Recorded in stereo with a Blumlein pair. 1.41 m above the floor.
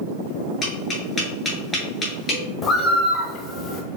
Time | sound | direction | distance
0.6 | tapping | 15° left | 2.5 m
2.6 | a bird | 15° left | 0.9 m